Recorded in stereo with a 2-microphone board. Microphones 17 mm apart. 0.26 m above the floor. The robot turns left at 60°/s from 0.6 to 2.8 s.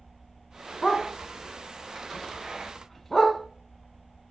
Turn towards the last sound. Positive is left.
turn(degrees=20)  # may be behind; listen again after turning